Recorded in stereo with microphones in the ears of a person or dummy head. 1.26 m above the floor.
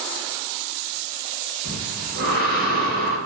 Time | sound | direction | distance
1.6 | breathing | 65° right (ahead or behind) | 1.1 m